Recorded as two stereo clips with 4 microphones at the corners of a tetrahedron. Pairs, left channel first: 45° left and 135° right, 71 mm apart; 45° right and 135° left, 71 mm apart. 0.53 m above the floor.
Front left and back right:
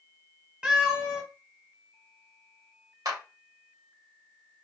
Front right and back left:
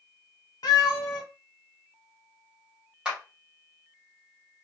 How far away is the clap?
About 1.5 m.